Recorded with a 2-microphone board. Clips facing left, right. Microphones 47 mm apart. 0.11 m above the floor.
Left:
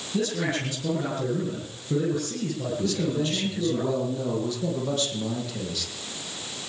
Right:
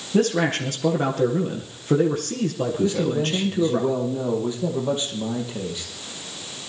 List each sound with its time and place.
0.1 s a man speaking: 50° right (ahead or behind), 4 m
2.8 s a man speaking: 20° right (ahead or behind), 5.5 m